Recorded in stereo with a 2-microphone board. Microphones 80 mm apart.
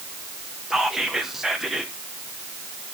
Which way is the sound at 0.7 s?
5° right (ahead or behind).